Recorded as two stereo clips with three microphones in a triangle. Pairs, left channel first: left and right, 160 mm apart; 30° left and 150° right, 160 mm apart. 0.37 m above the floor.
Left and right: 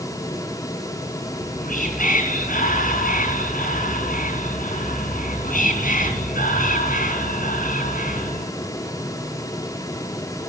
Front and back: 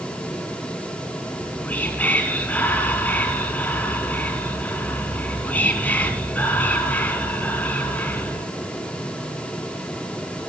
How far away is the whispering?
About 4 m.